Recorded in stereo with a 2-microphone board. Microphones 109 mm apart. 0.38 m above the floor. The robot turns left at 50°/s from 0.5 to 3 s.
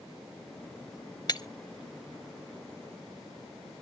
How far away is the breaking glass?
About 0.7 m.